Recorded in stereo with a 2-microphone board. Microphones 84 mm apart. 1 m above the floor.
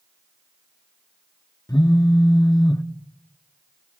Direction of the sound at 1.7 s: 50° left (ahead or behind).